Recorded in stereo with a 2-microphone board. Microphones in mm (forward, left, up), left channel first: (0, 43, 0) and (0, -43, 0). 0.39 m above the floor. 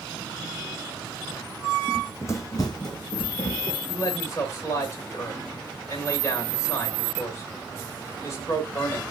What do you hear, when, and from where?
1.9 s running footsteps: 20° left (ahead or behind), 0.7 m; by 3.8 s 70° left (ahead or behind), 1.3 m
3.9 s a man speaking: 35° left (ahead or behind), 1.8 m